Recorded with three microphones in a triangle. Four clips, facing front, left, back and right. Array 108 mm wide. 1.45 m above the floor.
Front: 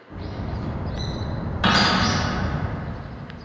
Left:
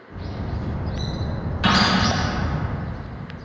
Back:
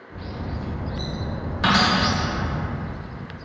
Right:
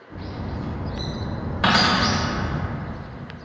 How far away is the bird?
About 0.7 m.